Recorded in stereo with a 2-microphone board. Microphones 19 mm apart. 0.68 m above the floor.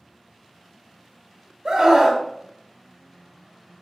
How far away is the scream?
About 1.7 m.